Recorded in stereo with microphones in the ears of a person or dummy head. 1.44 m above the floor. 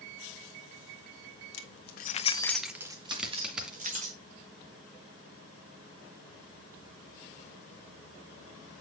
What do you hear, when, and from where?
1.5 s keys jangling: 80° left, 1.4 m; by 4.1 s 35° right (ahead or behind), 2.5 m
3.1 s a dropped coin: 10° right (ahead or behind), 3 m